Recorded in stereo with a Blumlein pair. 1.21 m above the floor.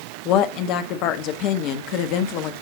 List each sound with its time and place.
0.2 s a woman speaking: 40° left, 1.4 m